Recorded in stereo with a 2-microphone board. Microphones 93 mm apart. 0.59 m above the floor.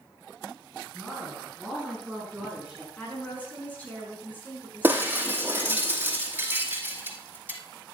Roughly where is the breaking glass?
Right.